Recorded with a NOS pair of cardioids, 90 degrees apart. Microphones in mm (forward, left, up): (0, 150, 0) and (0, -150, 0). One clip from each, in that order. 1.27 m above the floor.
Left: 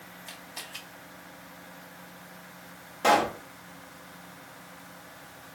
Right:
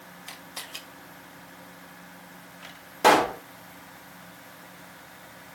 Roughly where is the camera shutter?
Ahead right.